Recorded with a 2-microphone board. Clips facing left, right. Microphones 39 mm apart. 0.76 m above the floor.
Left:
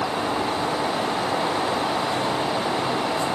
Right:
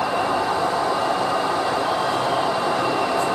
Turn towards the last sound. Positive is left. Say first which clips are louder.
# right 3 dB
turn(degrees=-55)  # may be behind; listen again after turning